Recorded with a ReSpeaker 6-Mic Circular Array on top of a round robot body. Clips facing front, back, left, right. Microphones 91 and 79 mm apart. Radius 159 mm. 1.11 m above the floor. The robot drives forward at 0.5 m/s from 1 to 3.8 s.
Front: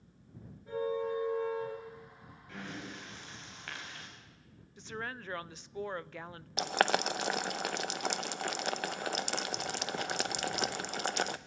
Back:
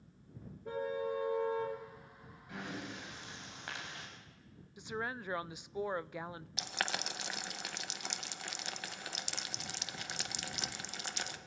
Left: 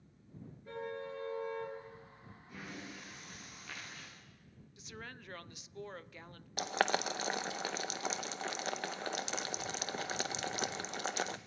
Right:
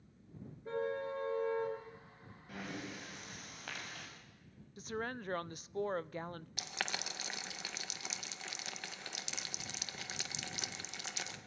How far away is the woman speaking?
About 0.7 m.